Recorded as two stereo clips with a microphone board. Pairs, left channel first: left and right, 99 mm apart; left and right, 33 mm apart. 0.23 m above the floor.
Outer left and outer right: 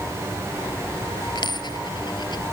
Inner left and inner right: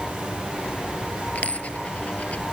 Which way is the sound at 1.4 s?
55° left (ahead or behind).